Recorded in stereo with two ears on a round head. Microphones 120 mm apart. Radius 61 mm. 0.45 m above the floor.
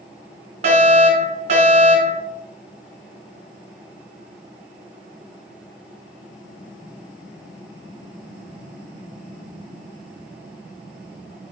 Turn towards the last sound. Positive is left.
turn(degrees=-50)  # may be behind; listen again after turning